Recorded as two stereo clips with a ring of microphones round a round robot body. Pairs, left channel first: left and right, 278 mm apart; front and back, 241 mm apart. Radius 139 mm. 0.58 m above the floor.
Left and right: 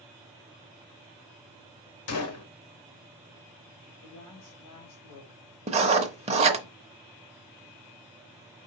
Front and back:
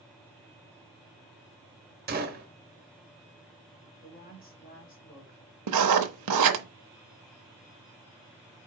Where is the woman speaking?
55° left, 2.5 m.